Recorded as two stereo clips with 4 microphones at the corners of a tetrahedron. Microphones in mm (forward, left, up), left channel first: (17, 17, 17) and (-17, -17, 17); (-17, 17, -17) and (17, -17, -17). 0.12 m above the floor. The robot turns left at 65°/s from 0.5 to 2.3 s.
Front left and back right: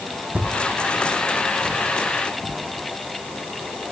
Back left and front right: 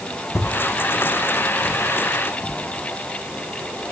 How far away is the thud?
About 2.5 m.